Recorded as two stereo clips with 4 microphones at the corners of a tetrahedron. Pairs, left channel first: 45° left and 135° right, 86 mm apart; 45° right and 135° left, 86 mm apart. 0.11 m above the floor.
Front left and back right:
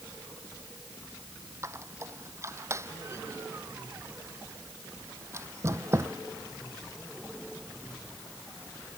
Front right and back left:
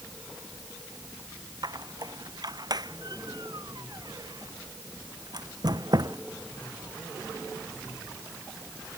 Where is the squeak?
170° left.